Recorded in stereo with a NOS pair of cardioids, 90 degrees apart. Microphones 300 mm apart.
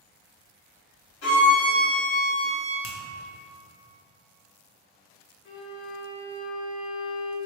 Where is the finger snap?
50° left, 1.0 m.